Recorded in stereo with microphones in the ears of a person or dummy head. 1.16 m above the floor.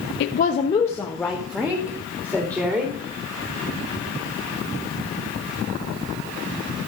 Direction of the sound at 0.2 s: 65° left (ahead or behind).